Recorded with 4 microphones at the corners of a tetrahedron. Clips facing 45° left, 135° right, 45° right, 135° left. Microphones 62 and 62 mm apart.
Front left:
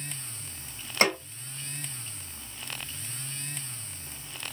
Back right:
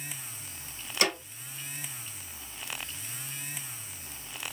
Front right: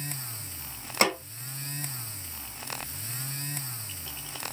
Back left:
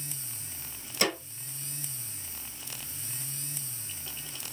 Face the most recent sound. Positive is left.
turn(degrees=-10)